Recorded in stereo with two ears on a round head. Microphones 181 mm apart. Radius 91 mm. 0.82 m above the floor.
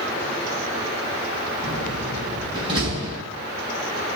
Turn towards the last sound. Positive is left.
turn(degrees=-25)  # may be behind; listen again after turning